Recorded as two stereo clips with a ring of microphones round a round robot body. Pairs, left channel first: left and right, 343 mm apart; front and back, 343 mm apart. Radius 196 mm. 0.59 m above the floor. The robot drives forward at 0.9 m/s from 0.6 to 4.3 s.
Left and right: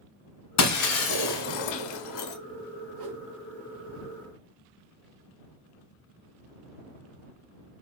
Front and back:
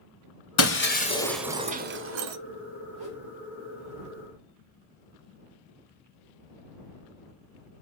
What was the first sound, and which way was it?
Breaking glass, 50° left.